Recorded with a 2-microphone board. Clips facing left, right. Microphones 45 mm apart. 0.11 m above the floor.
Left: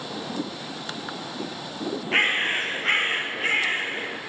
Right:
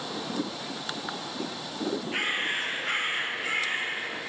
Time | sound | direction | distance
2.1 | a bird | 55° left (ahead or behind) | 0.6 m